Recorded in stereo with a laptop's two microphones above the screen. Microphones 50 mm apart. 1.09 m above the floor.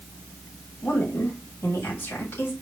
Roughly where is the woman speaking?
Left.